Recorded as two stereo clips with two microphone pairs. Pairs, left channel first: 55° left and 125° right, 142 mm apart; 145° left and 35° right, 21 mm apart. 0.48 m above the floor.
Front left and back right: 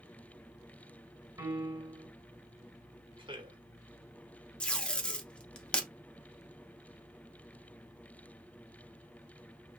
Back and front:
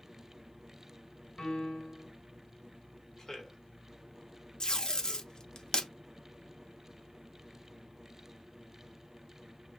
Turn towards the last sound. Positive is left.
turn(degrees=135)